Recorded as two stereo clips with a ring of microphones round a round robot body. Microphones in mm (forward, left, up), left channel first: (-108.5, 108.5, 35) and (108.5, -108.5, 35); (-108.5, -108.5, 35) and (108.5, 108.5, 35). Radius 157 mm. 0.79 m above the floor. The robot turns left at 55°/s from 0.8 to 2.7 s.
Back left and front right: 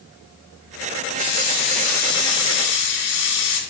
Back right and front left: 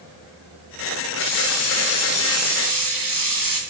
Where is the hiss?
145° right, 1.9 m; by 3.6 s 130° left, 1.9 m.